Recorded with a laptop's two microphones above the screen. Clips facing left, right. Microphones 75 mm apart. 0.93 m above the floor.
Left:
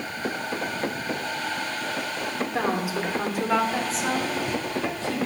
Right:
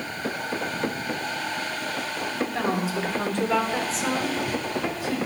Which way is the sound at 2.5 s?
20° left (ahead or behind).